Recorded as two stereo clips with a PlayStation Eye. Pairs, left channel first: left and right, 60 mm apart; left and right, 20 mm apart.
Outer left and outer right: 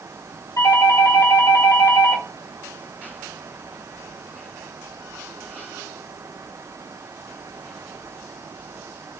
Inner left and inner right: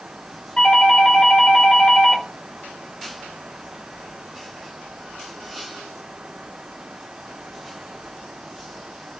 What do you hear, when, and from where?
0.6 s a doorbell: 65° left (ahead or behind), 1.8 m